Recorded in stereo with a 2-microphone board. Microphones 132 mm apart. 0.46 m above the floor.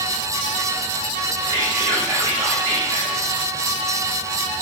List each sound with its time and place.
1.5 s whispering: 35° right (ahead or behind), 2 m